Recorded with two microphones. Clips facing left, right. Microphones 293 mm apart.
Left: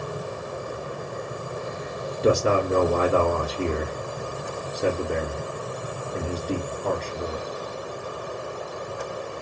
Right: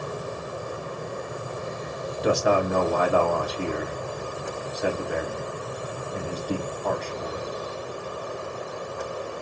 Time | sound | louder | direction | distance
2.2 | a man speaking | left 2 dB | 30° left (ahead or behind) | 1.5 m